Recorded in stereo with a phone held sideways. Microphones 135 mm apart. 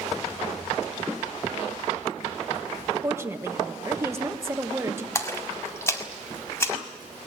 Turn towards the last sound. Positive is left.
turn(degrees=20)  # may be behind; listen again after turning